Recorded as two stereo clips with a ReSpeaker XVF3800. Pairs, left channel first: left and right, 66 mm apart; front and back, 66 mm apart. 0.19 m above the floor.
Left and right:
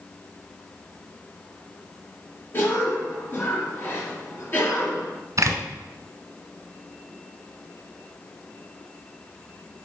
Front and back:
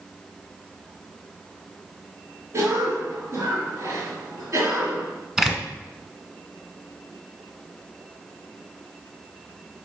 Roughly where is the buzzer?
I don't hear a buzzer.